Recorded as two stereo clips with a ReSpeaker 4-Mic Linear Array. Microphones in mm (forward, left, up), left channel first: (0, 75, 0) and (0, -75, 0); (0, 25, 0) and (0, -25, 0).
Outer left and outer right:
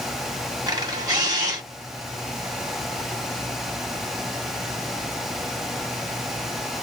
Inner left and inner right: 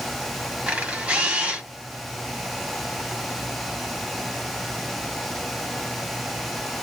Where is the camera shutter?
25° right (ahead or behind), 1.3 m.